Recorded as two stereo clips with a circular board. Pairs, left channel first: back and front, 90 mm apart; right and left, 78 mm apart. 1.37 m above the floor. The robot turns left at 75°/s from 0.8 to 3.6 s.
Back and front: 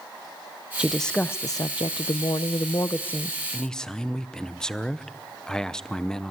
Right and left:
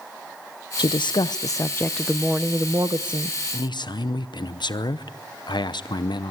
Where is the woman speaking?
80° right, 0.6 m; by 3.4 s 85° left, 0.6 m.